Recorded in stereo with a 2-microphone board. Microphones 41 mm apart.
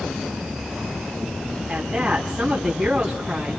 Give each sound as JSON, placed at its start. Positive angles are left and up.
{"t": 1.7, "sound": "a woman speaking", "side_deg": -15, "distance_m": 4.5}